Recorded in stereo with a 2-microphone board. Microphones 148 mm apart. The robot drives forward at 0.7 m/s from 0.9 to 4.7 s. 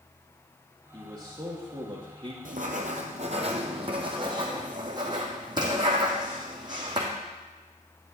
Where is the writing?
70° right (ahead or behind), 1.1 m; by 7.1 s 30° right (ahead or behind), 2 m.